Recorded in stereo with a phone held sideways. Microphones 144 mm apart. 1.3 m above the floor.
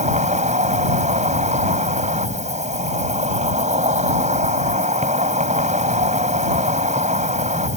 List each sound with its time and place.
0.0 s an insect: 55° right (ahead or behind)